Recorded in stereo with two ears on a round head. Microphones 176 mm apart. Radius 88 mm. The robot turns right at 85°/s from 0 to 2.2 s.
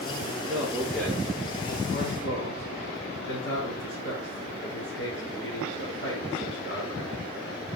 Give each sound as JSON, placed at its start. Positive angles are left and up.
{"t": 0.5, "sound": "a man speaking", "azimuth_deg": -35, "distance_m": 4.5}